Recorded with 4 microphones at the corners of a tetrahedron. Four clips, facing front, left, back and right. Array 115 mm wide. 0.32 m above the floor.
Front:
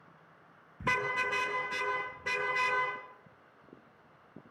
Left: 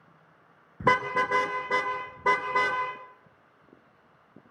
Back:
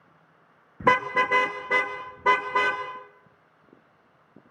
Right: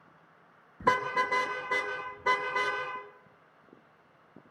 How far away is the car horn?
About 3 m.